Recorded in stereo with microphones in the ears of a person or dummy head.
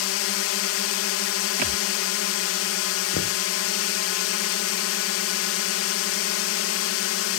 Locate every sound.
0.0 s a drone: 70° left (ahead or behind)
1.6 s a thud: 35° right (ahead or behind)
3.1 s knocking: 75° left (ahead or behind)